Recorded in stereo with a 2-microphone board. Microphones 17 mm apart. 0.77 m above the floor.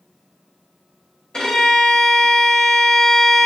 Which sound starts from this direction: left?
A violin, at 1.3 s.